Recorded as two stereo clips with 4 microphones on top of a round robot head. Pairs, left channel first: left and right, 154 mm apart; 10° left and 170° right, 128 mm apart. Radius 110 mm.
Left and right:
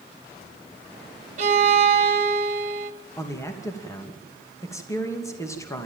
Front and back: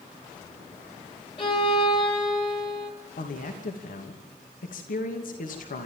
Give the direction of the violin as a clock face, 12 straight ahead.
2 o'clock.